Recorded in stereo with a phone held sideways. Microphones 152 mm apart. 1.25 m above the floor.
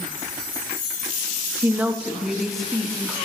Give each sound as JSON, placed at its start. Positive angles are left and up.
{"t": 1.6, "sound": "a woman speaking", "side_deg": -15, "distance_m": 1.2}